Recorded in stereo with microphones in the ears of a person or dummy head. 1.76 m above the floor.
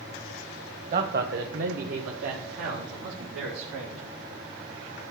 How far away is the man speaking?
About 1.1 m.